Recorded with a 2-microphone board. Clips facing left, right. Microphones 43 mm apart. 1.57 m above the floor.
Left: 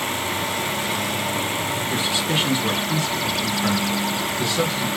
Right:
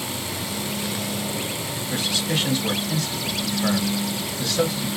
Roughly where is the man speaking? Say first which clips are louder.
Even; left.